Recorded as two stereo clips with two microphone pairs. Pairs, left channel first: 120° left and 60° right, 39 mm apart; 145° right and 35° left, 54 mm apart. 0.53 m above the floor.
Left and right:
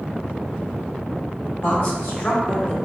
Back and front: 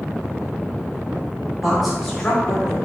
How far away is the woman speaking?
About 1.8 m.